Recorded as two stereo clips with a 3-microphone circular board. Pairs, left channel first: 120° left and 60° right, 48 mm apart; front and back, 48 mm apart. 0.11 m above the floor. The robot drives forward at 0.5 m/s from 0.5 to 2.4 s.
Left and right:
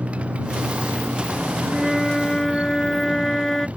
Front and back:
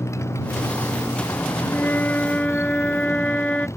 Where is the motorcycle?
5° left.